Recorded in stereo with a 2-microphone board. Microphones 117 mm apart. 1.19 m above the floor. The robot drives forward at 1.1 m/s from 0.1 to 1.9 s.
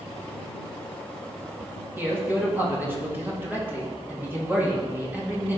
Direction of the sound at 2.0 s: 20° right (ahead or behind).